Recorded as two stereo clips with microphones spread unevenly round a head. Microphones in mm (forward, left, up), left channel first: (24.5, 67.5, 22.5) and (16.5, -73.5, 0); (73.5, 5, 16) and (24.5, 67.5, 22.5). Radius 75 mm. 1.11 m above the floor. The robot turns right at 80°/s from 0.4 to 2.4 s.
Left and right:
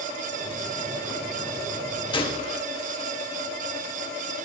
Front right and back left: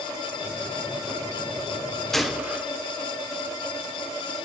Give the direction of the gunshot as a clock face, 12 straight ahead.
11 o'clock.